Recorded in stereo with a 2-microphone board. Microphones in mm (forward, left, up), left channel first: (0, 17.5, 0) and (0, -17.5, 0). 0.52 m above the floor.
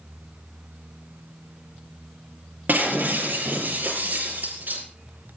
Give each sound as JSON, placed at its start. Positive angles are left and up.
{"t": 2.7, "sound": "breaking glass", "side_deg": -55, "distance_m": 5.5}